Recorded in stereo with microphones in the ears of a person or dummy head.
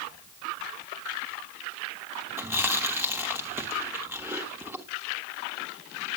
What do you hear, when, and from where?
2.4 s chewing: 15° right (ahead or behind), 1.2 m